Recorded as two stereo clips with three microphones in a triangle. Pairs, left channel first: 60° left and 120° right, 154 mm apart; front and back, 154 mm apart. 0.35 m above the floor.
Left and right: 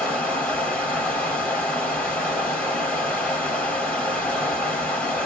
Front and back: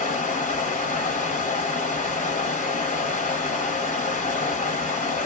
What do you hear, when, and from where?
0.0 s running water: 25° right, 1.2 m